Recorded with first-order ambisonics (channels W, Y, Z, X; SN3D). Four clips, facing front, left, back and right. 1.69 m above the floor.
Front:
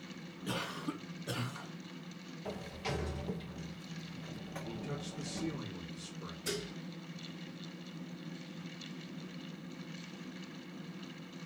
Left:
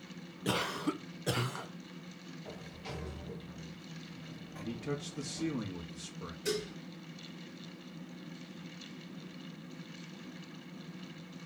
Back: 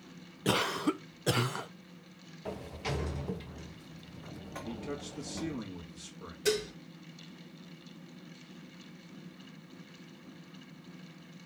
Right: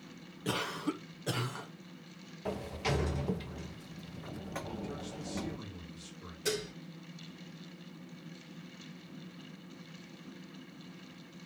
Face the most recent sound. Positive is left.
turn(degrees=-165)